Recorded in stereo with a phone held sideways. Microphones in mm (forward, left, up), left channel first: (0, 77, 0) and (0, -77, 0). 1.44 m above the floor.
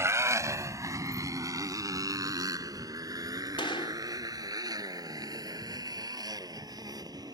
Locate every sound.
0.0 s a motorcycle: 20° right (ahead or behind); by 7.3 s 25° right (ahead or behind)
3.6 s a gunshot: 35° left (ahead or behind)